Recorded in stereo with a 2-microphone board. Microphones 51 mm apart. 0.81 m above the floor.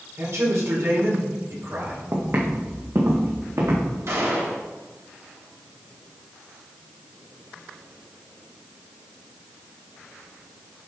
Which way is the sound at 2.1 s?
50° right (ahead or behind).